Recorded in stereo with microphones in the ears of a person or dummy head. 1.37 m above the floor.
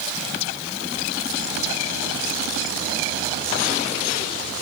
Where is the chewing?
I don't hear chewing.